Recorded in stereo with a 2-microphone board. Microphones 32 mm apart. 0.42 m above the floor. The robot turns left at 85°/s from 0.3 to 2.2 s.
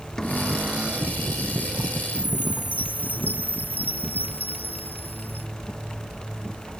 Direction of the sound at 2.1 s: 60° left (ahead or behind).